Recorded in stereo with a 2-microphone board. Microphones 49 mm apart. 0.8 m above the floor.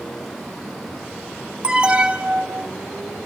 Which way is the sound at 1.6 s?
20° right (ahead or behind).